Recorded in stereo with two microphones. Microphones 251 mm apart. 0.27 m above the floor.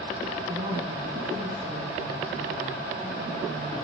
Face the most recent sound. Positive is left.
turn(degrees=-20)  # may be behind; listen again after turning